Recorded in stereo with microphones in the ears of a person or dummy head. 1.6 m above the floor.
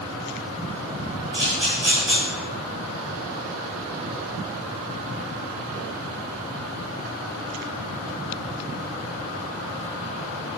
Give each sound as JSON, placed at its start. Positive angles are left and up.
{"t": 1.3, "sound": "a camera shutter", "side_deg": -15, "distance_m": 1.8}